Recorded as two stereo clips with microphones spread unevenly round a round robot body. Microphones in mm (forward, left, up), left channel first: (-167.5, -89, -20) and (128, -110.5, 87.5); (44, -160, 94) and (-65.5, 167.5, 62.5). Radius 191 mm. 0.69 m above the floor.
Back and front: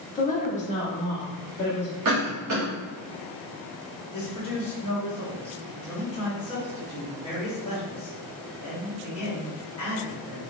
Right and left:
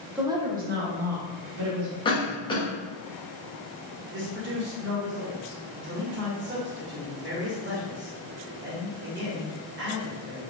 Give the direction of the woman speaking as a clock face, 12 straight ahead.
6 o'clock.